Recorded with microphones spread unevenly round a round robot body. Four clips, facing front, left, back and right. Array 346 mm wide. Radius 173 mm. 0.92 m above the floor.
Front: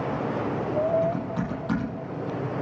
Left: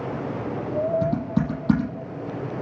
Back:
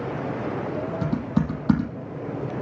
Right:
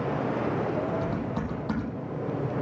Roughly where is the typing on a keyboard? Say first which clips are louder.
Left 6 dB, back 2 dB; behind left.